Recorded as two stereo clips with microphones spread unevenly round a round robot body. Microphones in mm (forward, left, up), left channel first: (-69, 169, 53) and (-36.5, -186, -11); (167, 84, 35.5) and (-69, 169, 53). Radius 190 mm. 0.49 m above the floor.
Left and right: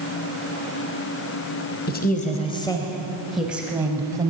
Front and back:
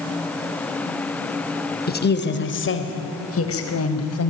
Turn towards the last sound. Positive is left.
turn(degrees=-10)